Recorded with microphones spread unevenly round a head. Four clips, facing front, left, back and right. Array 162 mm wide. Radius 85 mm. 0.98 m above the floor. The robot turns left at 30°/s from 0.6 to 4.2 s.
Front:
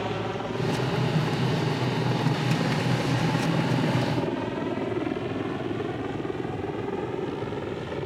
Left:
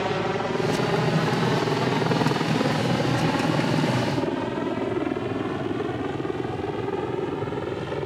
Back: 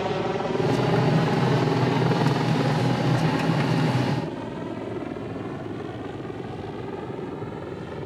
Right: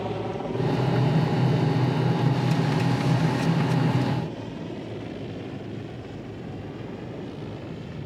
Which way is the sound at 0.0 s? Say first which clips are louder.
Left 4 dB, back 4 dB; 140° left.